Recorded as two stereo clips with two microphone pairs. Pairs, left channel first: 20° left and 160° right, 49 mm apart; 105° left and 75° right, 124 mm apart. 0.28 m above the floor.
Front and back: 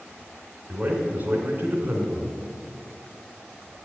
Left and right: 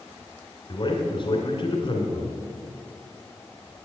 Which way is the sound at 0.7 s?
150° left.